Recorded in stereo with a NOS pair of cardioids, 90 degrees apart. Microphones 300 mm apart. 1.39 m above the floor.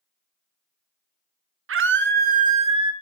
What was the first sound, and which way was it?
A scream, 45° right.